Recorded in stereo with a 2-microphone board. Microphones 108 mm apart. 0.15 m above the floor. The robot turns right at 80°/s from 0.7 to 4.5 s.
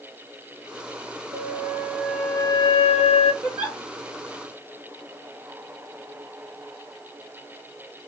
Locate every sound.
1.3 s a flute: 50° right, 0.6 m; by 3.3 s 110° left, 0.6 m
3.4 s a giggle: 25° right (ahead or behind), 2 m; by 3.8 s centre (ahead or behind), 2 m